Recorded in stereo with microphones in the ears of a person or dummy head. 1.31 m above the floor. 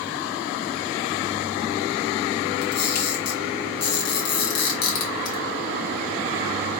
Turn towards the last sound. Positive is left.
turn(degrees=60)  # may be behind; listen again after turning